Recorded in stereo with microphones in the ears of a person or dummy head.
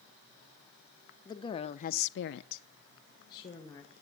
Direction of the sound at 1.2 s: 20° left (ahead or behind).